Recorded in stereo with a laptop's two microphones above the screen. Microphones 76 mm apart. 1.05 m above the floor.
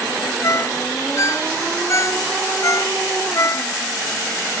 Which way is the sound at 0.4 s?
40° left (ahead or behind).